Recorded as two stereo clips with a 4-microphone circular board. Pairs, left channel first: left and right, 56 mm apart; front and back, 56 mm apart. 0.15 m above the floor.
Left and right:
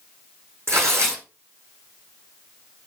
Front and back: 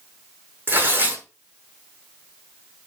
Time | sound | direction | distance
0.7 | tearing paper | 125° right | 6 m